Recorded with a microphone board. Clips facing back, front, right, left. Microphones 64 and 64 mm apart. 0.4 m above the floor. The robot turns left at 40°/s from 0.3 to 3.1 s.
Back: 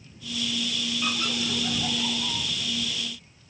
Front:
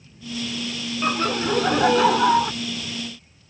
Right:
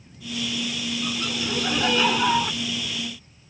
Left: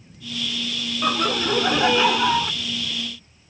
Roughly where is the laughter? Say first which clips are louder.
Front 10 dB, left 11 dB; ahead left.